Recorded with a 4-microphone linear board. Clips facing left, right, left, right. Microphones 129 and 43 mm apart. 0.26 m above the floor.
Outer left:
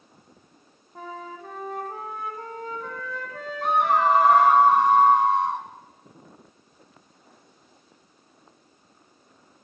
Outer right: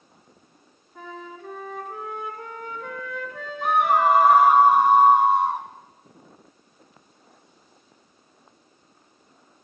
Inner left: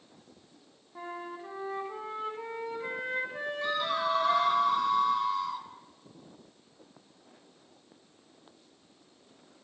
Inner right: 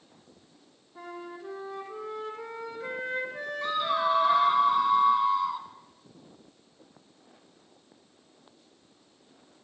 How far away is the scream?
About 2 m.